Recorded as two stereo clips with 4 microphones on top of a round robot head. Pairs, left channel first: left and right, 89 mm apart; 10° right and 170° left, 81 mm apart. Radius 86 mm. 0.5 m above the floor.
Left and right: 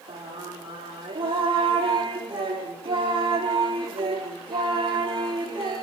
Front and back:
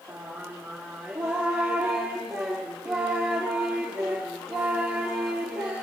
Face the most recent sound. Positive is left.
turn(degrees=-105)